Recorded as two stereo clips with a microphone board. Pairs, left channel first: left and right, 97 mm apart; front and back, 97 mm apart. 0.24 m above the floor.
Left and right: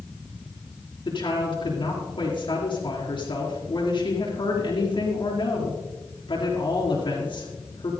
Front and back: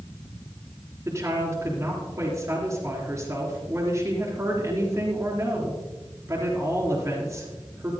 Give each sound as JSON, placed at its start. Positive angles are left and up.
{"t": 1.1, "sound": "a woman speaking", "azimuth_deg": 120, "distance_m": 3.5}